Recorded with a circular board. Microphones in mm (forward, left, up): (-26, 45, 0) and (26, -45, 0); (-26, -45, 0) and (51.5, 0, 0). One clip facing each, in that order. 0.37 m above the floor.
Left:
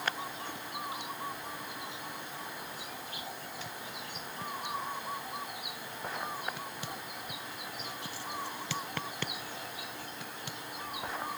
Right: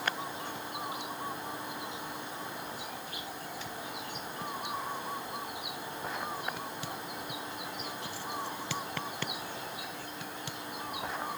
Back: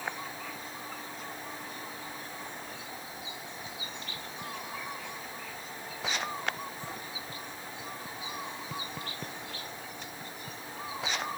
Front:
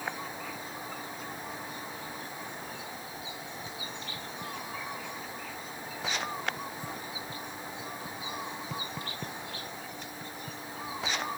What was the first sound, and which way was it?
Only background noise.